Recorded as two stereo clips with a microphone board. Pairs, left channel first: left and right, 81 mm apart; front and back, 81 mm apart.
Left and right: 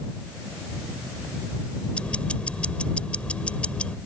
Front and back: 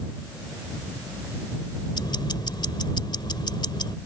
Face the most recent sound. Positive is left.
turn(degrees=15)